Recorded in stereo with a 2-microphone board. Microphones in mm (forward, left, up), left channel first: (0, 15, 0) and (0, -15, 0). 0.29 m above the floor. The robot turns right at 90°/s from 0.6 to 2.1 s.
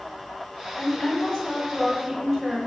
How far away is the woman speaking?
About 1.3 m.